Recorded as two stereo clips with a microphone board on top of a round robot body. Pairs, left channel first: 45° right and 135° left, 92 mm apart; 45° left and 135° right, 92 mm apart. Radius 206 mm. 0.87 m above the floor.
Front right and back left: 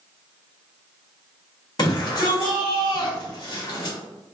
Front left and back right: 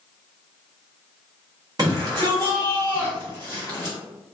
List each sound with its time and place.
1.8 s a shout: 90° right, 1.3 m